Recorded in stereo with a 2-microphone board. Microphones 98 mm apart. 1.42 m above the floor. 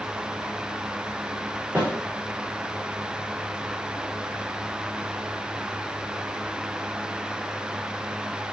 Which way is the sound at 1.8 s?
20° right (ahead or behind).